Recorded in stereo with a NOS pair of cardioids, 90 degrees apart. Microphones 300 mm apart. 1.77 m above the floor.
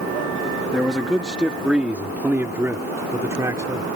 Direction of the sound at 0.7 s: Straight ahead.